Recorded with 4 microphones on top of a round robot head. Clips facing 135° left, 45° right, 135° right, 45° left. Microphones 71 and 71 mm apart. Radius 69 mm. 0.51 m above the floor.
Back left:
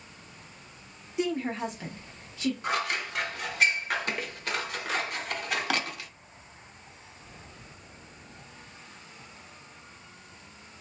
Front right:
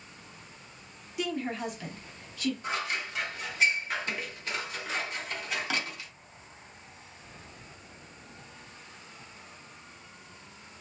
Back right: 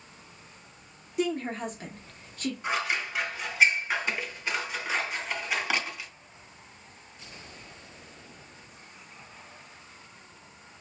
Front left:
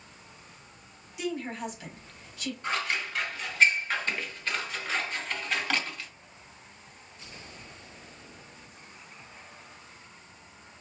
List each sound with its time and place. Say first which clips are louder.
1.2 s a woman speaking: back left 3 dB, back right 4 dB; 170° right, 1.0 m
2.6 s scissors: back left 3 dB, even; 145° left, 0.8 m